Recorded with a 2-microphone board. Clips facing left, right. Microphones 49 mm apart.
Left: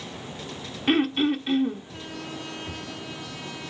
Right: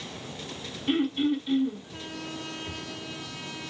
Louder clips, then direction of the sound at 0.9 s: Left 3 dB; 60° left (ahead or behind).